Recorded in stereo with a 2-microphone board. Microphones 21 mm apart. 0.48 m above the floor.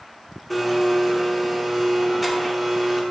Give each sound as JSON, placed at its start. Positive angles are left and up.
{"t": 0.5, "sound": "a blender", "side_deg": 5, "distance_m": 0.9}